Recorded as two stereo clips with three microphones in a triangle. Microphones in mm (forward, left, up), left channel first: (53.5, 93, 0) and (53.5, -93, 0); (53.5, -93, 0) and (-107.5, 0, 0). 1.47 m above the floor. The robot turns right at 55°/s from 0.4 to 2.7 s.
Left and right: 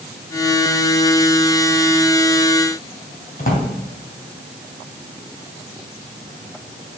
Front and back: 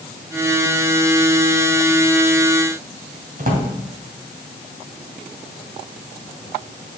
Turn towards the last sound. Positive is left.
turn(degrees=120)